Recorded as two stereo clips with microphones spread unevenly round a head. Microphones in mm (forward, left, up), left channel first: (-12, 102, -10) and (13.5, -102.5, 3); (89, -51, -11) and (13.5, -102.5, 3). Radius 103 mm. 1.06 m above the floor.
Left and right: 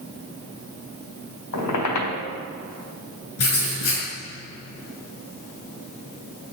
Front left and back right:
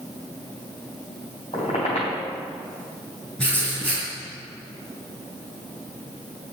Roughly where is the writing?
Behind left.